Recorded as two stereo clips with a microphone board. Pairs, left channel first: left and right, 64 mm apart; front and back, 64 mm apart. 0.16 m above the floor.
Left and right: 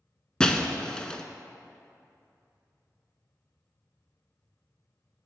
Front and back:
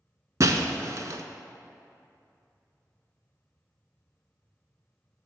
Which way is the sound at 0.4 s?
165° left.